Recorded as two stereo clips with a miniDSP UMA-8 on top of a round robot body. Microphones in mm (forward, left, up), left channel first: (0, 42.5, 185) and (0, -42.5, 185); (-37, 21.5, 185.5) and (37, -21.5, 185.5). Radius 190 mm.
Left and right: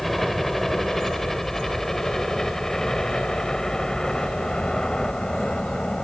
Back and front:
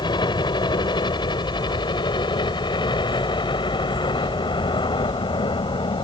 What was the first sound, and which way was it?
A helicopter, straight behind.